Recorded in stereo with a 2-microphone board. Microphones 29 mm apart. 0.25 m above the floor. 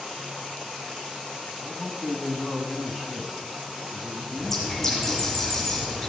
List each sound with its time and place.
1.6 s a man speaking: 10° right (ahead or behind), 1.4 m
4.4 s a bird: 5° left (ahead or behind), 3 m